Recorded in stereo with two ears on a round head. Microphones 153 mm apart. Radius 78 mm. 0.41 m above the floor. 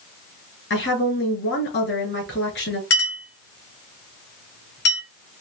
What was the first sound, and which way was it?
A woman speaking, 70° left (ahead or behind).